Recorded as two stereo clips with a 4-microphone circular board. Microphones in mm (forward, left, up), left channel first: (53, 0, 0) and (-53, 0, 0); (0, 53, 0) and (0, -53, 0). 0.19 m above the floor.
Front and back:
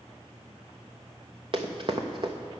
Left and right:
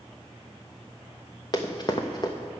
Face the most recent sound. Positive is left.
turn(degrees=140)